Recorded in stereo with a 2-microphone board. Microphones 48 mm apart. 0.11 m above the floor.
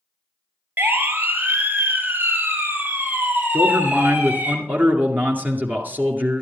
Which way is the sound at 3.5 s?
40° right (ahead or behind).